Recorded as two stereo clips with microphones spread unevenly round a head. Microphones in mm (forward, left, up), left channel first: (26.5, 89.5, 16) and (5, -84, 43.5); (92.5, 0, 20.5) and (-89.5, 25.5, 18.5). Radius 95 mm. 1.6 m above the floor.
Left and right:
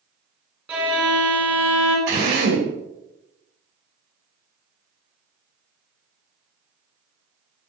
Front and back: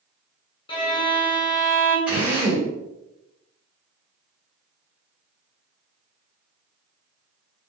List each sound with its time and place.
0.7 s a violin: 35° right, 0.8 m
2.1 s a drill: 105° right, 1.5 m